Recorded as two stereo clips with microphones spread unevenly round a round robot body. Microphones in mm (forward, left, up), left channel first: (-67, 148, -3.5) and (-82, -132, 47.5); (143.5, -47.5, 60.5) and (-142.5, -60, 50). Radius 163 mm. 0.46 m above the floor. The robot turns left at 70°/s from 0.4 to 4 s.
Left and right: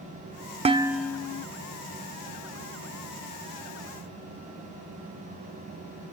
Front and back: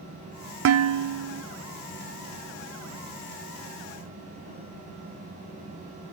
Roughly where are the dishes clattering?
Behind.